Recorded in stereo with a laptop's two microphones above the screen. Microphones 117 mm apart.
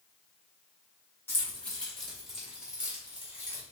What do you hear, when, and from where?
1.3 s keys jangling: 20° left (ahead or behind), 1.2 m; by 3.6 s 20° right (ahead or behind), 1.8 m